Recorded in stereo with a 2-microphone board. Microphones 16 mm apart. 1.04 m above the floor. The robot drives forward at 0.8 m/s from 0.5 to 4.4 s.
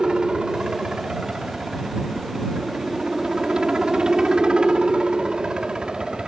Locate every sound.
0.0 s a helicopter: 55° right (ahead or behind); by 6.3 s 60° right (ahead or behind)